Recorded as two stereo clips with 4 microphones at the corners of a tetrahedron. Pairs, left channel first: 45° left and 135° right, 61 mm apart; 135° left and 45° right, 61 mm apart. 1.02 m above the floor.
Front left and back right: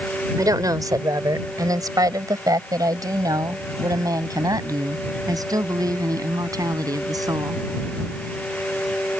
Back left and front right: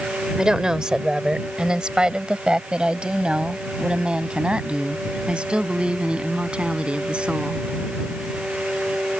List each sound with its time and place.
0.4 s a woman speaking: 125° right; by 7.6 s 120° right